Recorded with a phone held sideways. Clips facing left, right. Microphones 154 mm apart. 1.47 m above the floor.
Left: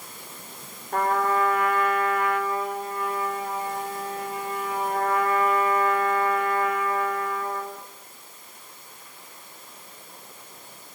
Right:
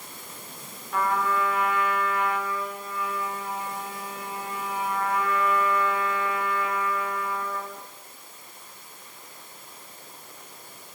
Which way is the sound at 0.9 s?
50° left (ahead or behind).